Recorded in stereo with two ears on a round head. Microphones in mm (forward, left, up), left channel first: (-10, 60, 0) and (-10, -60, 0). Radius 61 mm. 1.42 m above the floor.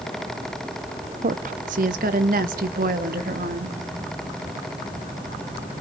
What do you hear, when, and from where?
1.2 s a woman speaking: 60° right (ahead or behind), 0.7 m; by 3.8 s 90° right, 2.5 m